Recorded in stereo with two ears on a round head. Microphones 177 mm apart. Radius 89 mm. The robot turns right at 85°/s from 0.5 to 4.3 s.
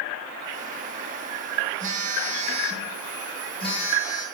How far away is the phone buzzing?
About 1.0 m.